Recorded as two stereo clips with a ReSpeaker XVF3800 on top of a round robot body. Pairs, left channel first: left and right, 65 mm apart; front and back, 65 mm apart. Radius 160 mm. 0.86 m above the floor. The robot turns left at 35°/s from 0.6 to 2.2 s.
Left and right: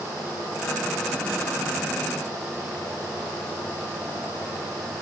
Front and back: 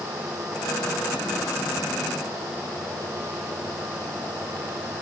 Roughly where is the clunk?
No clunk in this recording.